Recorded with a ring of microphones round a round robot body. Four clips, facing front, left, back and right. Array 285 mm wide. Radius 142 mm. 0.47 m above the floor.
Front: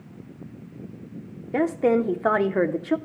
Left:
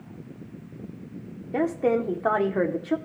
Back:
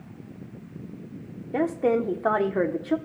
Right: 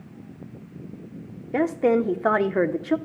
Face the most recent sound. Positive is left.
turn(degrees=-50)